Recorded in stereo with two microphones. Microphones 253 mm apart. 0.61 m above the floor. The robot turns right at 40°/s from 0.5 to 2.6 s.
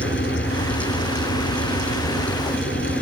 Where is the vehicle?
50° left; by 3.0 s 130° left.